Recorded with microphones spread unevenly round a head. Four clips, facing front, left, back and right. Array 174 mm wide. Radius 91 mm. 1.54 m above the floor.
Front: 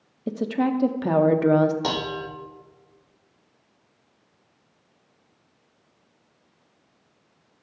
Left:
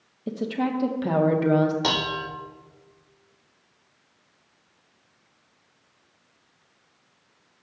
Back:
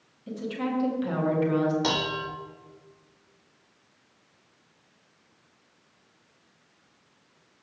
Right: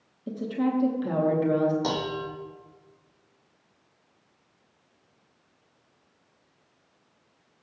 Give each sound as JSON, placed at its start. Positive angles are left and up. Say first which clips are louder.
{"t": 0.3, "sound": "a woman speaking", "louder": "left 1 dB, front 7 dB", "azimuth_deg": 25, "distance_m": 0.7}
{"t": 1.8, "sound": "dishes clattering", "louder": "left 2 dB, front 1 dB", "azimuth_deg": 55, "distance_m": 0.5}